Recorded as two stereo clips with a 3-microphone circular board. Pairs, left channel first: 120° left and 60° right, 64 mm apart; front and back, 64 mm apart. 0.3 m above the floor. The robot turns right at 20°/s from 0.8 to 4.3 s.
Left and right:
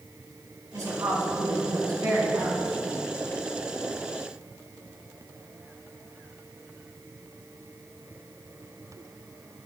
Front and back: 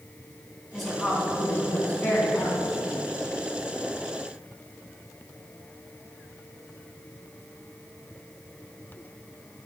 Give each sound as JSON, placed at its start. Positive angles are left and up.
{"t": 0.7, "sound": "a woman speaking", "azimuth_deg": -85, "distance_m": 2.5}